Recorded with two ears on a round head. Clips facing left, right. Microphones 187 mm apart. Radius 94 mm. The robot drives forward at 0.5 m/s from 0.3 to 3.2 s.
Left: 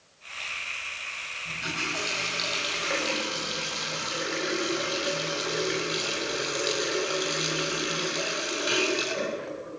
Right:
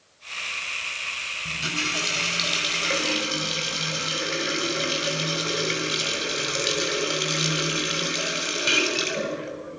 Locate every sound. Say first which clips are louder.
1.4 s a running tap: right 3 dB; 40° right (ahead or behind), 6.5 m; by 9.8 s 35° right (ahead or behind), 7 m